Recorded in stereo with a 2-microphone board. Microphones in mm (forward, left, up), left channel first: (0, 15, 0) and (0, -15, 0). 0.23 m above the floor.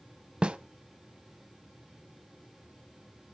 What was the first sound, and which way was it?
A snare drum, 35° right (ahead or behind).